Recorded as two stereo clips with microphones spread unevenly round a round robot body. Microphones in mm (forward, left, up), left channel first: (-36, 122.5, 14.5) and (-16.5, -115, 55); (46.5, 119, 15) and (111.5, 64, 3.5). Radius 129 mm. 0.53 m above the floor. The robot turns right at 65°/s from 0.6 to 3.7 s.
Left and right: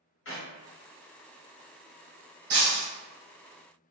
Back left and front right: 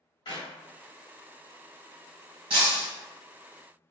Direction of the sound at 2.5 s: 80° right.